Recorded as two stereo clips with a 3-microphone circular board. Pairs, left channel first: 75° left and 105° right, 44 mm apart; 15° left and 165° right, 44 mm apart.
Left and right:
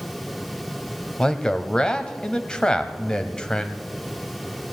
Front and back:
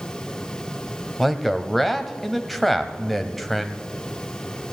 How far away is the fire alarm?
No fire alarm in this recording.